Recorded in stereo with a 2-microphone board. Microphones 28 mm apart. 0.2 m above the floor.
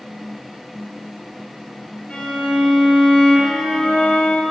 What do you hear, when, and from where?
2.1 s a violin: 60° left (ahead or behind), 2.0 m